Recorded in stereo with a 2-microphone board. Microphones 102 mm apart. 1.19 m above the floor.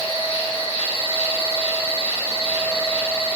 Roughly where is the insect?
Left.